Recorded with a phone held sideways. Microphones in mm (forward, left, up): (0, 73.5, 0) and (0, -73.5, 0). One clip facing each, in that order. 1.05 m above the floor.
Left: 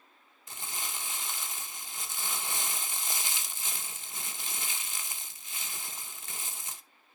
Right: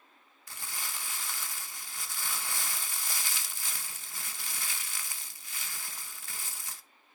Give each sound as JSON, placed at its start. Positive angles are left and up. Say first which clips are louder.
{"t": 0.5, "sound": "crumpling", "louder": "left 2 dB", "side_deg": 20, "distance_m": 0.9}